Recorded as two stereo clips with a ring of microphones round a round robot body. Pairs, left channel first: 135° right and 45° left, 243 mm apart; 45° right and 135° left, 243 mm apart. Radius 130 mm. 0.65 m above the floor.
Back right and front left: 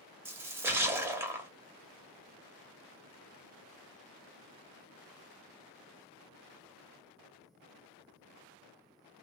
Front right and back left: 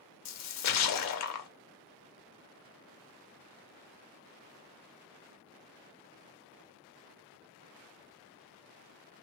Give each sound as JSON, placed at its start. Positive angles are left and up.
{"t": 0.2, "sound": "a splash", "azimuth_deg": -35, "distance_m": 0.7}